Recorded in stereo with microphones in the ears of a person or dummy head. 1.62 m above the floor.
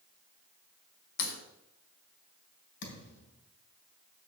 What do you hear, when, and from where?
1.2 s a crack: 60° left (ahead or behind), 1.8 m
2.8 s a thud: 70° left (ahead or behind), 3 m